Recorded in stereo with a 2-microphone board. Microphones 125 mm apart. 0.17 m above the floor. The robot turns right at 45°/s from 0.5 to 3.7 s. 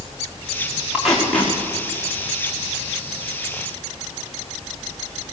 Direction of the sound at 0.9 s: 10° right (ahead or behind).